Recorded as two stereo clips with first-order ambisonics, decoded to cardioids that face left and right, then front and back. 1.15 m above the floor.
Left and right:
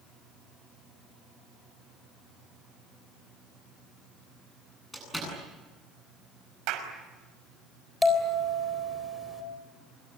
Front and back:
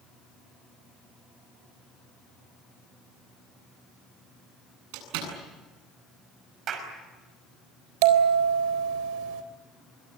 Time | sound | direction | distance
4.9 | a door slam | 175° left | 9 m
6.7 | a clap | 120° right | 5.5 m
8.0 | a bell | 175° left | 3.5 m